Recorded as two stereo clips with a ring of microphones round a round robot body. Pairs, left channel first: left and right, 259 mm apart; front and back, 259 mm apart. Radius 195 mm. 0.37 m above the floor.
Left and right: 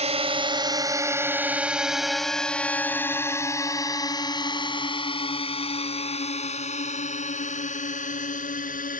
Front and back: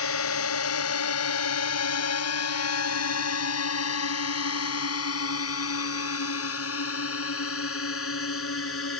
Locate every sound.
0.0 s a drone: 25° right; by 9.0 s 30° left